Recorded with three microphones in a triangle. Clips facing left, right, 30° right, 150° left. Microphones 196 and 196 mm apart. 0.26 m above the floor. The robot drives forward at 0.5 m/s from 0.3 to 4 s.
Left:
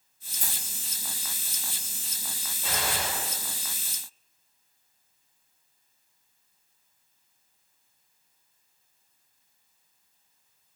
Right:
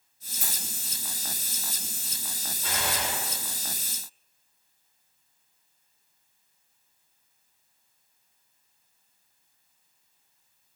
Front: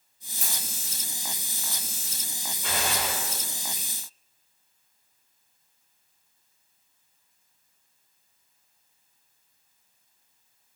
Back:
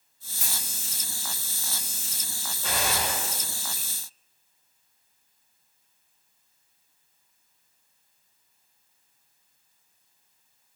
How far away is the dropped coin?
About 1.6 m.